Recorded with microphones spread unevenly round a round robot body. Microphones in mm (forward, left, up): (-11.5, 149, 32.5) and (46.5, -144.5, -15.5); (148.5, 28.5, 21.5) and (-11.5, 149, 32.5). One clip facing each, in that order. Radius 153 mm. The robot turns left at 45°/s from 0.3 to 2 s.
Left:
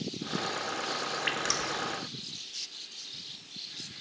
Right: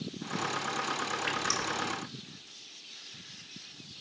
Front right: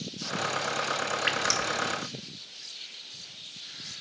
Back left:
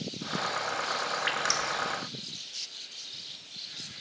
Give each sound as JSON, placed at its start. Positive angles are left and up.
{"t": 1.3, "sound": "dripping", "azimuth_deg": 15, "distance_m": 1.2}